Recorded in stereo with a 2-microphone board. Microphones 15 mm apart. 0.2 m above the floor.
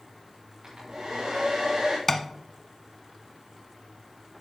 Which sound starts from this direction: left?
Tapping, at 2.1 s.